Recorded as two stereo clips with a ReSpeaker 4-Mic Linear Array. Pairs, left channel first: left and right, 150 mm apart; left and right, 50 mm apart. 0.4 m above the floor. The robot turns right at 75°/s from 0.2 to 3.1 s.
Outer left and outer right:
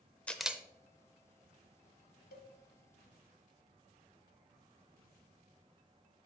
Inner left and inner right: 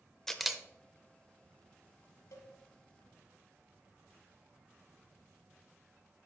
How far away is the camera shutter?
About 0.6 m.